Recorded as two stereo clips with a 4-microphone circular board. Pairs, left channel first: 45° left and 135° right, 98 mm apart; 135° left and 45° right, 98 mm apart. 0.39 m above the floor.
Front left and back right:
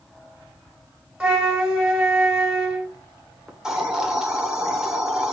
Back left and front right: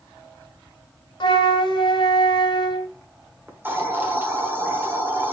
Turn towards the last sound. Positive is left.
turn(degrees=-60)